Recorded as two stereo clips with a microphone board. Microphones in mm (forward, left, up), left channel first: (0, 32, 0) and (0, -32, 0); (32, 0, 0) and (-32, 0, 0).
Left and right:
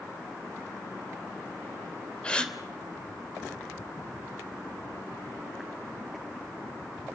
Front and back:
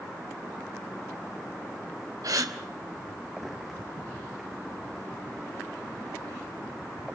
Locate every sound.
2.2 s a gasp: 165° left, 3 m